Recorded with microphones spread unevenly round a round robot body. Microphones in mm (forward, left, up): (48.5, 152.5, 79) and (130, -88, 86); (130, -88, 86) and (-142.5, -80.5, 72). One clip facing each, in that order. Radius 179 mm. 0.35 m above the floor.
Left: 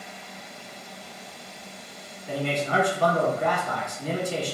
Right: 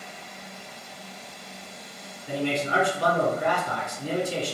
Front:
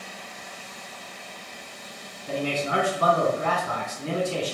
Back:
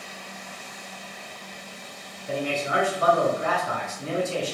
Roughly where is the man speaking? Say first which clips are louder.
Right 1 dB, even; ahead.